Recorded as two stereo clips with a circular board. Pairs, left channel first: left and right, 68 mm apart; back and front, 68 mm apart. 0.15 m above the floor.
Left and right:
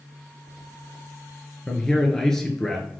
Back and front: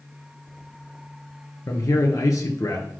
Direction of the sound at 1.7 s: 170° left.